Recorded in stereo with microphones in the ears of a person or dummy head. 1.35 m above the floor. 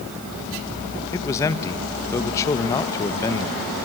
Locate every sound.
1.1 s a man speaking: 15° left (ahead or behind), 1.2 m